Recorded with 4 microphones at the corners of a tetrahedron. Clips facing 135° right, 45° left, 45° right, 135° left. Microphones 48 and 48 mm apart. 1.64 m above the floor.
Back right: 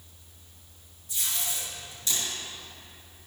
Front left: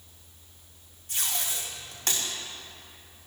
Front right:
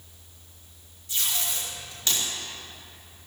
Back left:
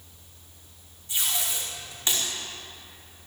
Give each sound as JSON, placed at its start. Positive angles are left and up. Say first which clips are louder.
{"t": 1.1, "sound": "tape being pulled", "louder": "front left 1 dB, even", "azimuth_deg": 70, "distance_m": 5.0}